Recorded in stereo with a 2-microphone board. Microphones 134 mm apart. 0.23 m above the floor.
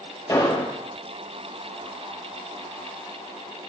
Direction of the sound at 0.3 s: 25° left (ahead or behind).